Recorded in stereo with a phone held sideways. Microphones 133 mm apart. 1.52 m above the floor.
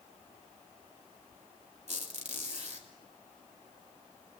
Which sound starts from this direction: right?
A squeak, at 1.9 s.